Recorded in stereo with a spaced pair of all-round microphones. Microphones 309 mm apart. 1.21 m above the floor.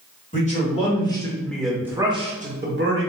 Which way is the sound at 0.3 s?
25° left (ahead or behind).